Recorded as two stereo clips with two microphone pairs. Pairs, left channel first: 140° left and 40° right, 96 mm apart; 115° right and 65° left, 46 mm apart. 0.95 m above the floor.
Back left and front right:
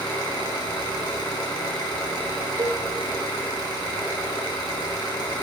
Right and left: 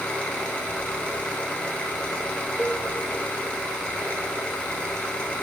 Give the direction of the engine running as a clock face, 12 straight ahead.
6 o'clock.